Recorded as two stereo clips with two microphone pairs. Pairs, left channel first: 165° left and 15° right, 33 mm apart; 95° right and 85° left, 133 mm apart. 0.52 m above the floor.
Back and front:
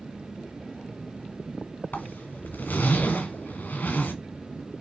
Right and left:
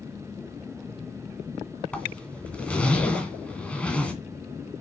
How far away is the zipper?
About 1.5 m.